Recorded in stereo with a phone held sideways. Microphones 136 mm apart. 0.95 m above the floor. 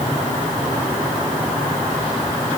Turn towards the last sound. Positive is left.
No sound to turn to.